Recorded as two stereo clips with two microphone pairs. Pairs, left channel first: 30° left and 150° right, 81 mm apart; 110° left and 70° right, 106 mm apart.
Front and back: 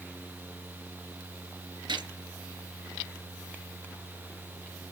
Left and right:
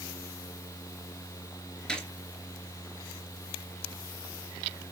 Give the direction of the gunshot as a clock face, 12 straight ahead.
6 o'clock.